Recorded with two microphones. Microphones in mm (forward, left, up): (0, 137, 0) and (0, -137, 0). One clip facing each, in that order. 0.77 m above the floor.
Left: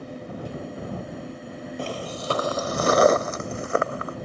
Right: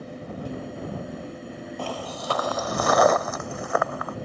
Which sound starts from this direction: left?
Footsteps, at 1.8 s.